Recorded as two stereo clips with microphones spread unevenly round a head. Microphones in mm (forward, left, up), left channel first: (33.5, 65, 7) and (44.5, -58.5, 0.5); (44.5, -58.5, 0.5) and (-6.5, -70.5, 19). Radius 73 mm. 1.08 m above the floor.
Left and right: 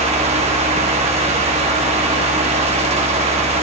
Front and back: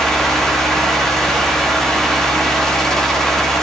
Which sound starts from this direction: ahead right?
A fan, at 0.0 s.